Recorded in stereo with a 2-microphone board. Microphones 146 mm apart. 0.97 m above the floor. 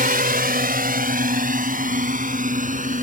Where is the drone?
75° right (ahead or behind); by 3.0 s 60° right (ahead or behind).